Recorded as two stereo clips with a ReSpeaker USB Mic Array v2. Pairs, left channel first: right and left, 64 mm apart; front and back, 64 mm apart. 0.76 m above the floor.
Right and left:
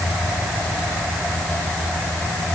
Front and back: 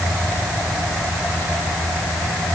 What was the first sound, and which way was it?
Only background noise.